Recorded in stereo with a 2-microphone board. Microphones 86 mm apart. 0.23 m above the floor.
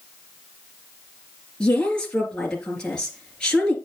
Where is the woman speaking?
10° left (ahead or behind), 3.5 m.